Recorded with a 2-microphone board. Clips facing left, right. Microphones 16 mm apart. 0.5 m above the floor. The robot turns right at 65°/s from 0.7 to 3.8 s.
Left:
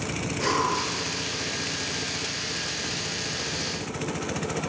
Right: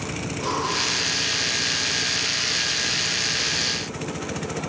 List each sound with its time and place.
0.4 s breathing: 85° left, 4.5 m; by 0.9 s 70° left (ahead or behind), 4.5 m